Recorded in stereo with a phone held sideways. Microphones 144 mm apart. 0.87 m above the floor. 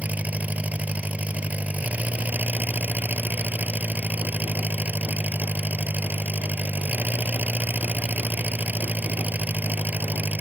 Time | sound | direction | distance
0.0 | an engine running | 10° right (ahead or behind) | ?